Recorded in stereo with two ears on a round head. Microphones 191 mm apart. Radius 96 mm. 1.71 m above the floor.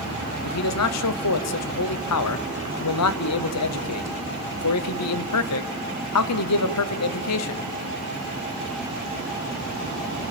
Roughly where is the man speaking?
Left.